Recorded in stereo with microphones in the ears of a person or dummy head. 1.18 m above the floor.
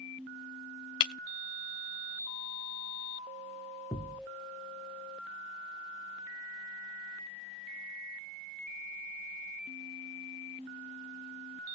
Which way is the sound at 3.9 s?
5° left (ahead or behind).